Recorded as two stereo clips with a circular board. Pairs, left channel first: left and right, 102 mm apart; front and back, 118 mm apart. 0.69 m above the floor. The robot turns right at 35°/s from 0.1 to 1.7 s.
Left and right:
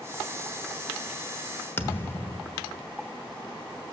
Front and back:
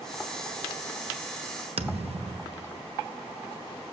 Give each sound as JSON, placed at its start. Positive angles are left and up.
{"t": 1.8, "sound": "a thud", "azimuth_deg": 155, "distance_m": 1.1}